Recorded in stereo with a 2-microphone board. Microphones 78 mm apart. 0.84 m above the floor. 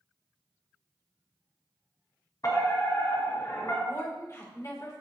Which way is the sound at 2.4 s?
45° left (ahead or behind).